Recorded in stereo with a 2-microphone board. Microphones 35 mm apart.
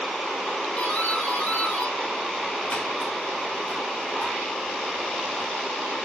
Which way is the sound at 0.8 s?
30° left (ahead or behind).